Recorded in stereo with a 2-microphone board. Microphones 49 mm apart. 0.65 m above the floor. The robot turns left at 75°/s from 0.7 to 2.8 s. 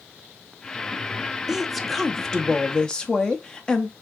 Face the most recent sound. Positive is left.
turn(degrees=20)  # may be behind; listen again after turning